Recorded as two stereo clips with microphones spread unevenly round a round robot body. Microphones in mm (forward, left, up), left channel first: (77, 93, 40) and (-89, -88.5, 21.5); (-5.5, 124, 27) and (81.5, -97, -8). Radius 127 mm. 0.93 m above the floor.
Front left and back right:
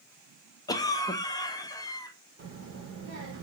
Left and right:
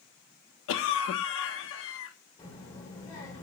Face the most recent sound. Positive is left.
turn(degrees=-175)